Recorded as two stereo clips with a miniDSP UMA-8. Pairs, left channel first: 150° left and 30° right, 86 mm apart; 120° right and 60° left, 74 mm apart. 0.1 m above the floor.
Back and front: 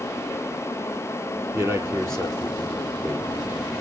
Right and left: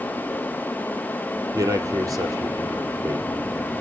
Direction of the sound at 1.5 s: 25° left.